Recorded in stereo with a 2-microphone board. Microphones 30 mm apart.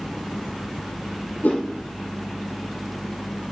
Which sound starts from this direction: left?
A whoosh, at 1.4 s.